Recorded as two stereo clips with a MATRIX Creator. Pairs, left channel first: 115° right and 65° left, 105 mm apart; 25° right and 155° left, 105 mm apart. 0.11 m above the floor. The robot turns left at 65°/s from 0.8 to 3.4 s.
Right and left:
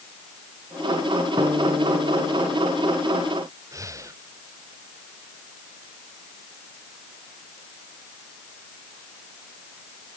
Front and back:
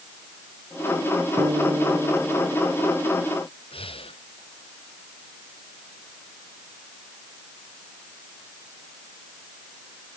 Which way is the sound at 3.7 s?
10° left.